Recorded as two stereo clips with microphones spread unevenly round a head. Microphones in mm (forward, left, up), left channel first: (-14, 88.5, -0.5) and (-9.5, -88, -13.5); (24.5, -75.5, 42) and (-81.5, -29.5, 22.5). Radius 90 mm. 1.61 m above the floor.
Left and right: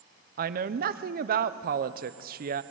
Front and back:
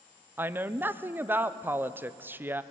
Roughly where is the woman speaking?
Behind right.